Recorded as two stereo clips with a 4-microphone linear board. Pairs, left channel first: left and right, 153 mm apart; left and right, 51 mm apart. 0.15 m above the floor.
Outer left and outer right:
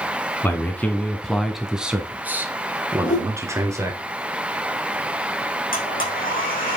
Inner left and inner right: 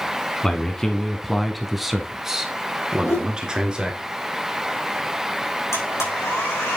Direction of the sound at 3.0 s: 60° left (ahead or behind).